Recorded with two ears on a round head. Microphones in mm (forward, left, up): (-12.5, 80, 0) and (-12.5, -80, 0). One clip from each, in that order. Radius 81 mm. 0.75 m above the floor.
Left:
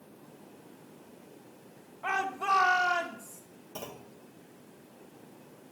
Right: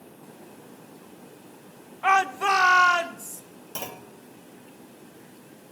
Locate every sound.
2.0 s a shout: 55° right (ahead or behind), 1.3 m; by 3.4 s 70° right (ahead or behind), 2.5 m
3.8 s a clunk: 50° right (ahead or behind), 1.4 m